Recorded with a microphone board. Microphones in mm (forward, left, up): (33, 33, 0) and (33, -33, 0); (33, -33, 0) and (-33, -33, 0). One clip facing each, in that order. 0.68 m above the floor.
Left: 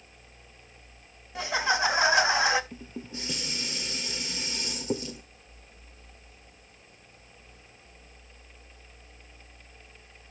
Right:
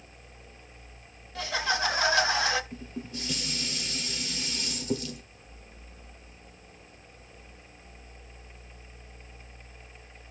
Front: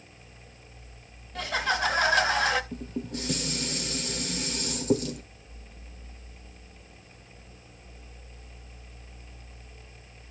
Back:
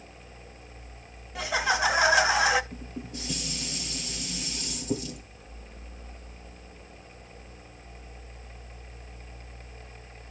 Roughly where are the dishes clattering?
Ahead left.